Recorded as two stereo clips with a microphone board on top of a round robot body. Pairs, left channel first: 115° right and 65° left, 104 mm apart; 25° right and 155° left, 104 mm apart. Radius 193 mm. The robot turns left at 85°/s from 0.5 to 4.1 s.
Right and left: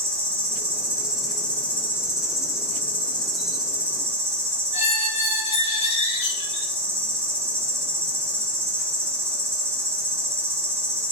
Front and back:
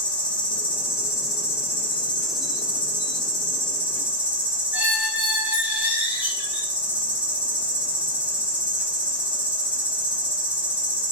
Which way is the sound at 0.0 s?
45° left.